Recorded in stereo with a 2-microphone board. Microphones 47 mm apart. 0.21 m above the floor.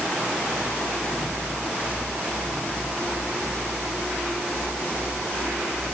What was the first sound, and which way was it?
Only background noise.